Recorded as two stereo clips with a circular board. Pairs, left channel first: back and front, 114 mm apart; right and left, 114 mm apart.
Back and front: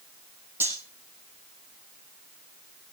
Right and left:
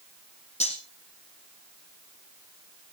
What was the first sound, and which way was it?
Cutlery clinking, 70° right.